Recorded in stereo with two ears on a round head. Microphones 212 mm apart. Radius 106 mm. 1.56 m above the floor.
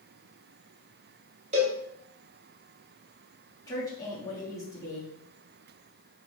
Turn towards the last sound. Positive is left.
turn(degrees=15)  # may be behind; listen again after turning